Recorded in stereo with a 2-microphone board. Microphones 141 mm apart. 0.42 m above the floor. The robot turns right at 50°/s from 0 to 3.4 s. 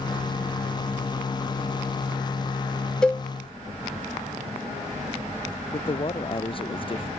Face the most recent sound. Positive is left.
turn(degrees=40)  # may be behind; listen again after turning